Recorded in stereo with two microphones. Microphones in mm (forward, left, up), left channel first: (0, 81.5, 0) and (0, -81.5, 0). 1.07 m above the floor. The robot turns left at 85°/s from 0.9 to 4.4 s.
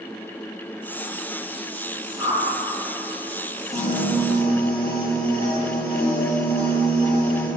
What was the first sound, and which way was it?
A whoosh, 10° right (ahead or behind).